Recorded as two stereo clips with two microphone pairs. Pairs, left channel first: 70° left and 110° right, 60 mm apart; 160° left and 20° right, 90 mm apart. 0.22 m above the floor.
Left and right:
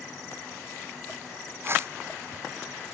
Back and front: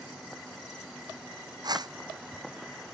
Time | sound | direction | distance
1.6 | a whoosh | 60° right | ?